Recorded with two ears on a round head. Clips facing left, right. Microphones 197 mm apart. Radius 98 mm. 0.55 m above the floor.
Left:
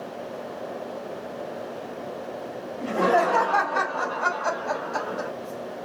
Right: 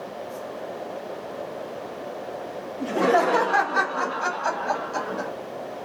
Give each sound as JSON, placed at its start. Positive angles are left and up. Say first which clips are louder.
{"t": 2.8, "sound": "laughter", "louder": "right 1 dB", "side_deg": -25, "distance_m": 1.3}